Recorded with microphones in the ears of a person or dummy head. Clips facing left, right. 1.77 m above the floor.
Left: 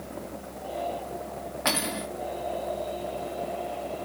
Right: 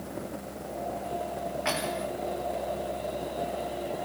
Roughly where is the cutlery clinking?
Left.